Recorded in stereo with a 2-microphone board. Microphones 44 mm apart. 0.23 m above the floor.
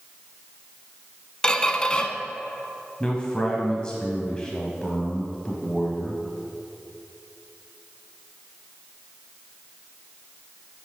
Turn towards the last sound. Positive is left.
turn(degrees=20)  # may be behind; listen again after turning